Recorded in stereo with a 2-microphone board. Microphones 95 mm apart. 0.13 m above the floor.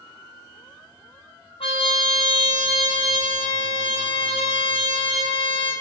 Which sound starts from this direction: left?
A trumpet, at 1.6 s.